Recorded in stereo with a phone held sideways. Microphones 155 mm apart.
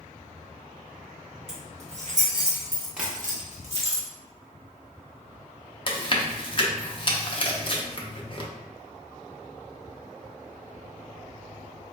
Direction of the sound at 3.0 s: 5° right (ahead or behind).